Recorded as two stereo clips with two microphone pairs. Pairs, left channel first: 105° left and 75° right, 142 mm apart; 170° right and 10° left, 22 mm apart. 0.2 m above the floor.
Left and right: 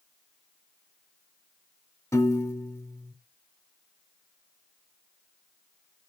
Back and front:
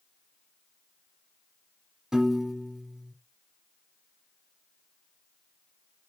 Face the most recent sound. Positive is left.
turn(degrees=40)